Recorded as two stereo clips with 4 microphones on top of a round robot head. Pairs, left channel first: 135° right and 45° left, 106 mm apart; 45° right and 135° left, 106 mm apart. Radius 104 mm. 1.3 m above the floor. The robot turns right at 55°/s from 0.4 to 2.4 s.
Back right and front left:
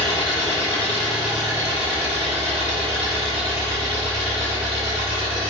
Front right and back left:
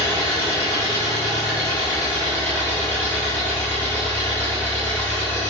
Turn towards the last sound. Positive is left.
turn(degrees=25)